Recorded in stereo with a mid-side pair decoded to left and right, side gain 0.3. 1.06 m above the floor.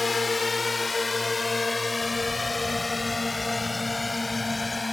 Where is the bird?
25° left.